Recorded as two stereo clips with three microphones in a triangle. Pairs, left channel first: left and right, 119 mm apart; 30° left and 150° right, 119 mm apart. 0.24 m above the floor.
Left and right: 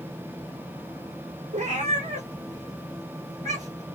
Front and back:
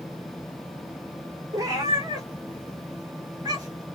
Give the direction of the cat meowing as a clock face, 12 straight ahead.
3 o'clock.